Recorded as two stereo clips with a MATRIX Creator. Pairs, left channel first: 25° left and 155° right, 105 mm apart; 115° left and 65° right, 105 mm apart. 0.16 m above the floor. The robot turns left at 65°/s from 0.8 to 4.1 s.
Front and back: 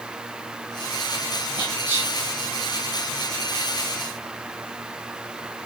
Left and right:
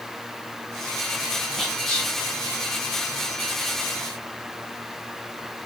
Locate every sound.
1.6 s whispering: 150° right, 1.6 m; by 2.1 s 175° left, 1.6 m